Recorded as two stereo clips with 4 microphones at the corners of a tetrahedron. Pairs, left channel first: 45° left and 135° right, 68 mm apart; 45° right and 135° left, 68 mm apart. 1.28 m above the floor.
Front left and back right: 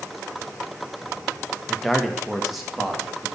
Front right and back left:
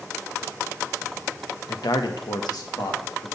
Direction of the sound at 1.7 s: 40° right.